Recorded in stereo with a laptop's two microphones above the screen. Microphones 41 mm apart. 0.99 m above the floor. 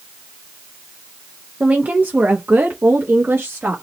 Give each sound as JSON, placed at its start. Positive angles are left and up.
{"t": 1.6, "sound": "a woman speaking", "side_deg": -40, "distance_m": 0.7}